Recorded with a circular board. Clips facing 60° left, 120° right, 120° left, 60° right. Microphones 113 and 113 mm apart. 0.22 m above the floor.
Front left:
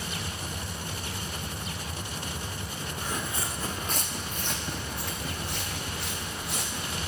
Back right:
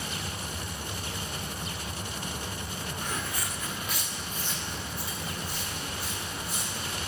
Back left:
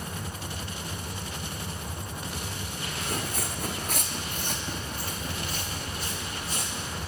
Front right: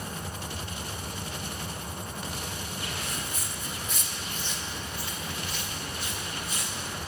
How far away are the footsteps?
About 0.7 m.